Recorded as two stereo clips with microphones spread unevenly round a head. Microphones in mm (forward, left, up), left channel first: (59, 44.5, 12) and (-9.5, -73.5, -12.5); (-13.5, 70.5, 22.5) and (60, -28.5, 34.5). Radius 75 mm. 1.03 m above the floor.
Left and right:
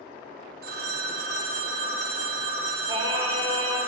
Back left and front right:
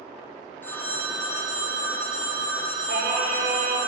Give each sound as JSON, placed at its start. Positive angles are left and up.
{"t": 0.6, "sound": "a phone ringing", "azimuth_deg": -155, "distance_m": 1.7}
{"t": 2.9, "sound": "singing", "azimuth_deg": -60, "distance_m": 2.5}